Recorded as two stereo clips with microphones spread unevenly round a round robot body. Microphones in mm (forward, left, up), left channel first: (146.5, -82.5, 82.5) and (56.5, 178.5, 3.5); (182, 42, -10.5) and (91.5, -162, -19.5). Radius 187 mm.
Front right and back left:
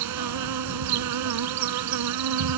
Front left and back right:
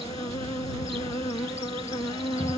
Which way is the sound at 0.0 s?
140° left.